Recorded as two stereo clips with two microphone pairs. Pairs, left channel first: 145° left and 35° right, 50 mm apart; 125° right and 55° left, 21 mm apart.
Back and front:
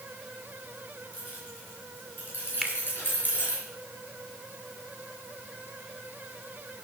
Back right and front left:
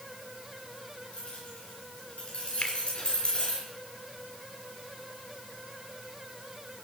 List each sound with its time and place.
1.1 s keys jangling: 165° right, 7.5 m; by 3.6 s 170° right, 5 m
2.6 s a finger snap: 125° right, 1.5 m